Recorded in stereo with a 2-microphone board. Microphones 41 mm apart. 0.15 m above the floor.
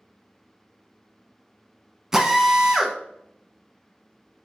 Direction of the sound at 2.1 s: 10° right (ahead or behind).